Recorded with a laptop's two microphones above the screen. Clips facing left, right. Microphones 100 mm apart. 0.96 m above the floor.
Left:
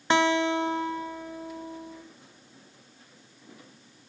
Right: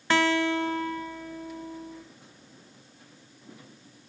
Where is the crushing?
I don't hear crushing.